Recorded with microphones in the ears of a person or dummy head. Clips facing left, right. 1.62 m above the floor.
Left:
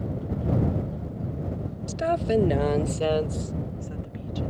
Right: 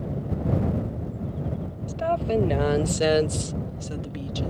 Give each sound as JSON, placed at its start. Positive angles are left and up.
{"t": 1.9, "sound": "a woman speaking", "side_deg": 30}